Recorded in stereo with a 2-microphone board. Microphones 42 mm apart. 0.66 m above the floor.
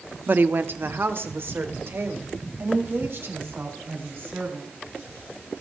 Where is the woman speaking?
45° right (ahead or behind), 0.7 m; by 4.7 s 55° right (ahead or behind), 5 m.